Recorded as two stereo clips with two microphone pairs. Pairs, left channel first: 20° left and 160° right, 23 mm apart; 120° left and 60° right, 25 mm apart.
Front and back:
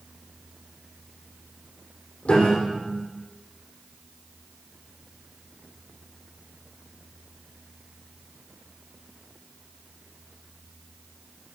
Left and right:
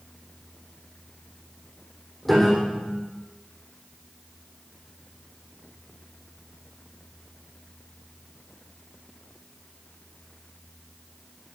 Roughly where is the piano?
Ahead left.